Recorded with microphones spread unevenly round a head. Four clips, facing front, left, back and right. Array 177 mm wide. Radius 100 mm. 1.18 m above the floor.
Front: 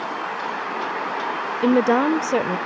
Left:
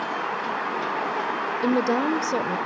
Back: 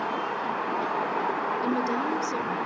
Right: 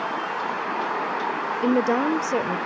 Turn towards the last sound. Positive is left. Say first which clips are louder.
# right 1 dB, front 14 dB
turn(degrees=-5)